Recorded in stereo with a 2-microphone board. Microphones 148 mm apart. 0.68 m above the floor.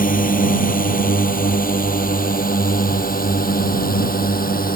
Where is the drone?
70° left (ahead or behind); by 4.8 s 80° left.